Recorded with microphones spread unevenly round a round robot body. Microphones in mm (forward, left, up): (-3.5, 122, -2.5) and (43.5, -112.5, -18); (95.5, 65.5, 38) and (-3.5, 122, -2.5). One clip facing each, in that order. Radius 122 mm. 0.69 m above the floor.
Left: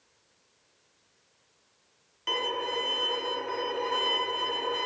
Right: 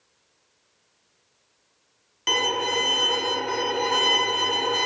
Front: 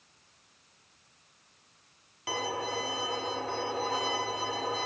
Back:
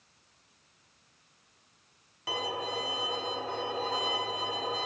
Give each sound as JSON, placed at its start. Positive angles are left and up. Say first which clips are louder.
{"t": 2.3, "sound": "a violin", "louder": "right 5 dB, front 1 dB", "azimuth_deg": -110}